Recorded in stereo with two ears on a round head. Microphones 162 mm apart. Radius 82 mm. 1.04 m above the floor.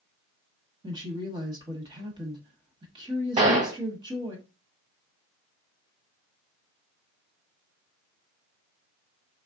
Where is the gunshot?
35° right (ahead or behind), 1.1 m.